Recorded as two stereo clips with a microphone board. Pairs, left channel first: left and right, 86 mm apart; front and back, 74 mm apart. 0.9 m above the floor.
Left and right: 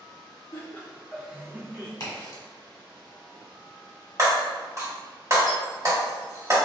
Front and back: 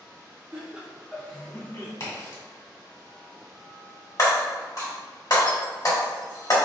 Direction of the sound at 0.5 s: 125° left.